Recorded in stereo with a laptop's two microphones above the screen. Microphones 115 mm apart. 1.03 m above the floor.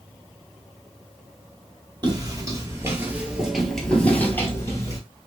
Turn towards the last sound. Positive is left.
turn(degrees=30)  # may be behind; listen again after turning